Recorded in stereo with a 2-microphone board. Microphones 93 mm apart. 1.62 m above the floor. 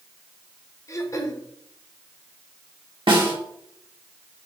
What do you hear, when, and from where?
0.9 s throat clearing: 35° left (ahead or behind), 1.1 m
3.1 s a snare drum: 70° right (ahead or behind), 2 m